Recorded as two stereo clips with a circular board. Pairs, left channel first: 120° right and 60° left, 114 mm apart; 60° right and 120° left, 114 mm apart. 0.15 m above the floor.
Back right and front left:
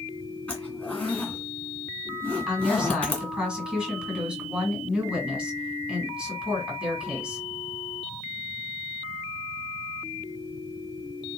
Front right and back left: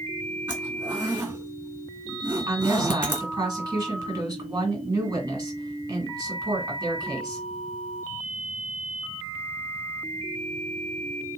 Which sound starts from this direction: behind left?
A woman speaking, at 2.5 s.